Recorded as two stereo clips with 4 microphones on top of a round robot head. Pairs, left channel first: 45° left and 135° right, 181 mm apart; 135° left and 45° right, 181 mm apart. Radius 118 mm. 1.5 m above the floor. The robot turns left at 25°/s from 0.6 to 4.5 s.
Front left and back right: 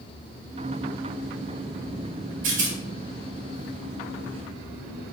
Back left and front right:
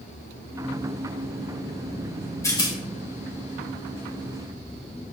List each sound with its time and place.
2.4 s a rattle: 150° right, 2 m; by 2.8 s 160° right, 2 m